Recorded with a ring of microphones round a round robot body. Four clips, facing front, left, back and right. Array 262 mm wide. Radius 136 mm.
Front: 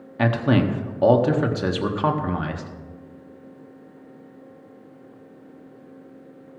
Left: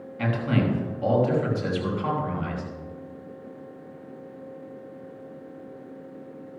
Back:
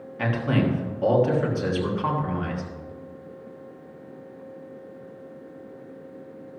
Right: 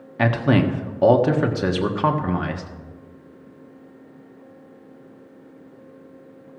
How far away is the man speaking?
About 1.4 m.